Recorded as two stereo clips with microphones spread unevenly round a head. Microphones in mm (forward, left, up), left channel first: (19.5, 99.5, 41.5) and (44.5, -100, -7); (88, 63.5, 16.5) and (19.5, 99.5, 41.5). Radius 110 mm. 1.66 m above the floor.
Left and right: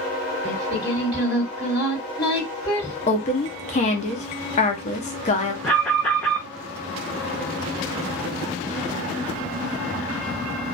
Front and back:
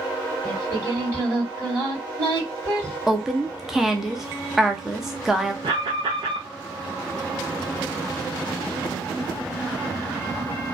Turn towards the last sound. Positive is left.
turn(degrees=180)